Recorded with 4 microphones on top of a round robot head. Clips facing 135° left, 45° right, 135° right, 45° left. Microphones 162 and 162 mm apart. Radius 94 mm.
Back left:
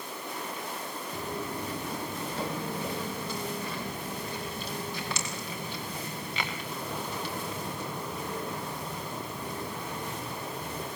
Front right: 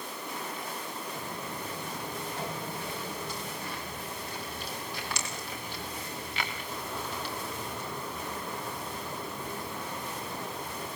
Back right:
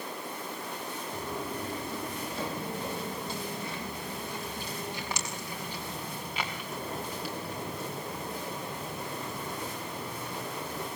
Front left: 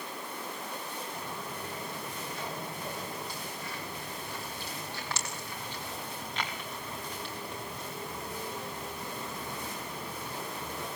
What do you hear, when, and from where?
1.1 s footsteps: 170° left, 5 m; by 10.9 s 130° left, 9 m